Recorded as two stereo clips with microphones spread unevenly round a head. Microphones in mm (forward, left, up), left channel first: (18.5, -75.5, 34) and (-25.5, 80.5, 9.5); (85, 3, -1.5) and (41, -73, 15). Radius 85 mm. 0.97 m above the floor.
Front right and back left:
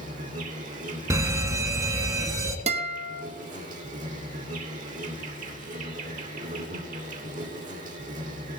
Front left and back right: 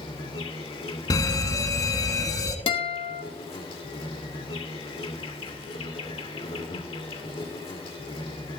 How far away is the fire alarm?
About 1.9 m.